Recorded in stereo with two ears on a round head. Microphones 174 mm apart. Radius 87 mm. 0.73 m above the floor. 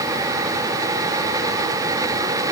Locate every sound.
Only background noise.